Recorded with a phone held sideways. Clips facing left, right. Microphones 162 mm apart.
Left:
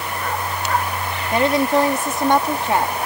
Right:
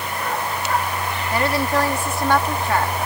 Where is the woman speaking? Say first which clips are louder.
Left 4 dB; 20° left (ahead or behind).